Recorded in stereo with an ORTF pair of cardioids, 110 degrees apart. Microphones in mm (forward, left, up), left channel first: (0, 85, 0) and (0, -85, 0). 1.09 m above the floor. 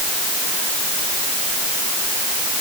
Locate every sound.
Only background noise.